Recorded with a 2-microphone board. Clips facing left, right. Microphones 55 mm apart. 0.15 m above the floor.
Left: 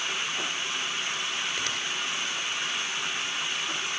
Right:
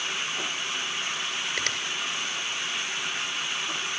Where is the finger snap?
65° right (ahead or behind), 1.9 m.